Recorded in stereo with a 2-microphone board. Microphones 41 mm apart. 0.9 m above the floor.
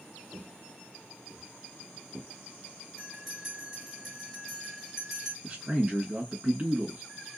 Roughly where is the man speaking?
Right.